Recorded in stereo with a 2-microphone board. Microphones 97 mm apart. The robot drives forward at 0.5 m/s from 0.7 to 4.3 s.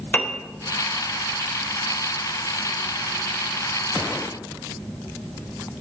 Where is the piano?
20° left (ahead or behind), 0.6 m.